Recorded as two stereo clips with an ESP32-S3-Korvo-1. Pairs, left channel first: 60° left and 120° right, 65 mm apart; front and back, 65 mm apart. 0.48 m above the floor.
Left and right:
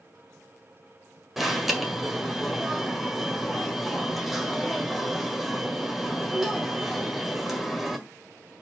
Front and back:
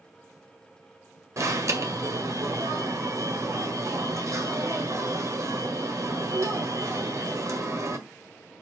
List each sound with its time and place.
1.4 s an alarm: 155° left, 1.7 m